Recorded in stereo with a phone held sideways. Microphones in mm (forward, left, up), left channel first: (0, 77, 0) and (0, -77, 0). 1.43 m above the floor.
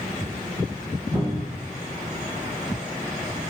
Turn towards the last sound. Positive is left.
turn(degrees=-30)  # may be behind; listen again after turning